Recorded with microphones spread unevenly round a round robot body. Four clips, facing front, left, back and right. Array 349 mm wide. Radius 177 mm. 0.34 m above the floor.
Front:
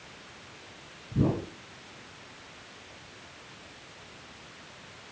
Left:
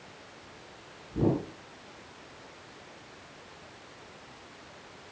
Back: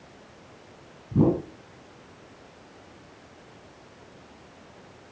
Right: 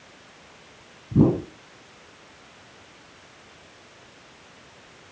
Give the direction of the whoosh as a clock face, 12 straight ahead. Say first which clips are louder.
Right 8 dB, back 6 dB; 4 o'clock.